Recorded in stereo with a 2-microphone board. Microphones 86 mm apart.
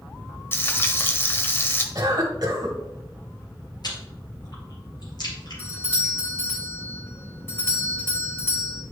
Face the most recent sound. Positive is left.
turn(degrees=30)  # may be behind; listen again after turning